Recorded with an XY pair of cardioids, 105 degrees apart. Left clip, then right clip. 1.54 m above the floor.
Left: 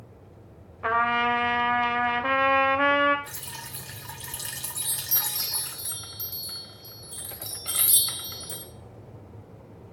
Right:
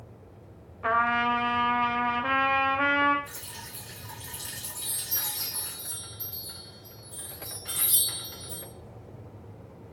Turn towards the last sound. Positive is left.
turn(degrees=65)